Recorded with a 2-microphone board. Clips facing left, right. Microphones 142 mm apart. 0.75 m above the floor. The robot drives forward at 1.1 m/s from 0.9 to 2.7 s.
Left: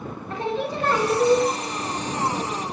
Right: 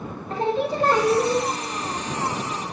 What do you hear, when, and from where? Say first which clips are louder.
0.3 s singing: right 3 dB; 35° right (ahead or behind), 0.5 m; by 1.4 s 15° right (ahead or behind), 1.0 m